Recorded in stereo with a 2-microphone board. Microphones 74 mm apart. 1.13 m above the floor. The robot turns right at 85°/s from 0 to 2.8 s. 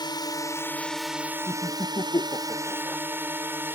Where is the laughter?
50° left (ahead or behind); by 3.0 s 15° left (ahead or behind).